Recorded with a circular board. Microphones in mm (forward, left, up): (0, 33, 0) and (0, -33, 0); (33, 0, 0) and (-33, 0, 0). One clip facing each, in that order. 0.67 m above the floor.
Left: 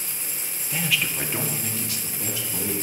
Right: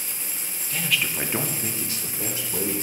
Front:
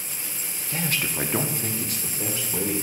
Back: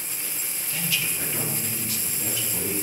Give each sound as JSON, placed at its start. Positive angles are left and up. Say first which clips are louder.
{"t": 0.7, "sound": "a man speaking", "louder": "even, front 3 dB", "azimuth_deg": 25, "distance_m": 0.6}